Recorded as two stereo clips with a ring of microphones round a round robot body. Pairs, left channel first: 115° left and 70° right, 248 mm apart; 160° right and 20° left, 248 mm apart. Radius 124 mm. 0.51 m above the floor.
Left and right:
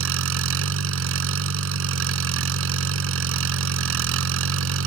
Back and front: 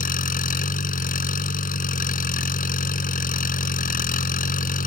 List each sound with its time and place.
0.0 s an engine running: 100° right